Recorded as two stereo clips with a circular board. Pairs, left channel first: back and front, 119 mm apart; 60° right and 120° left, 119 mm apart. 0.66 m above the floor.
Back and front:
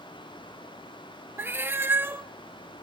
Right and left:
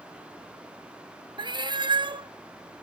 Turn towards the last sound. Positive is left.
turn(degrees=70)